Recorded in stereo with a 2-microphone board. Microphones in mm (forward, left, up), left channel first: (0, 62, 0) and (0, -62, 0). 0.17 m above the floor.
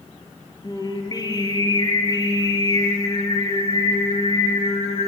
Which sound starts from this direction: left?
Singing, at 0.6 s.